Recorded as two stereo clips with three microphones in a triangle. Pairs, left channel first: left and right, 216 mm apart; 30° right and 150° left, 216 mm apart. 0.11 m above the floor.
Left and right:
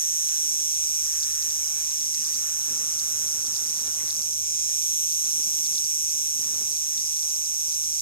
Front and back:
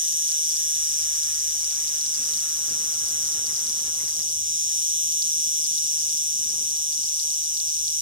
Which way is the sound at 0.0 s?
135° left.